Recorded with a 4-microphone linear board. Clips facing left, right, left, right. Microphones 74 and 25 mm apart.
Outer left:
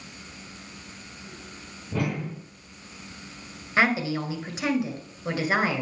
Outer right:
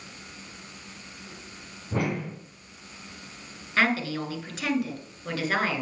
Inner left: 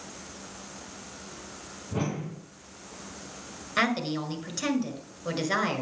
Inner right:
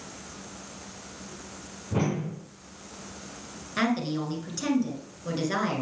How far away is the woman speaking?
About 1.8 m.